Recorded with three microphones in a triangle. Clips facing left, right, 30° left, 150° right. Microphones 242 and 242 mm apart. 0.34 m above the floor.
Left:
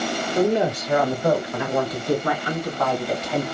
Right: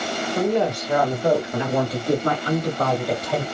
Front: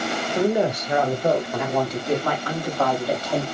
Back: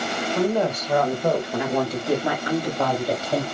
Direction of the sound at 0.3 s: 50° left.